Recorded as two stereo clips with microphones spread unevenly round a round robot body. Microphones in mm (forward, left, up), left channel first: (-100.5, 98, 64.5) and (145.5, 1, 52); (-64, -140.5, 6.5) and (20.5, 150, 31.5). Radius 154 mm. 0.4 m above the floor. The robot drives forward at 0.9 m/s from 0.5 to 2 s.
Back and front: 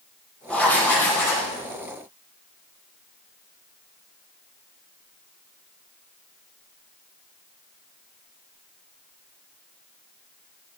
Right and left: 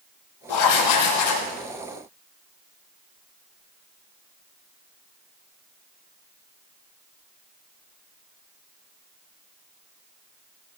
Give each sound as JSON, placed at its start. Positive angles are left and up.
{"t": 0.5, "sound": "writing", "azimuth_deg": -115, "distance_m": 7.5}